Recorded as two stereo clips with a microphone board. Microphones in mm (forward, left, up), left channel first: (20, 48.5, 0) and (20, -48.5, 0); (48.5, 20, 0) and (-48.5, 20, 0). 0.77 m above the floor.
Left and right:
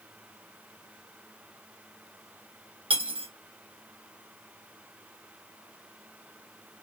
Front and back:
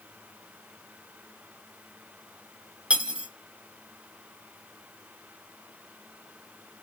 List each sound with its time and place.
2.9 s cutlery clinking: 105° right, 0.9 m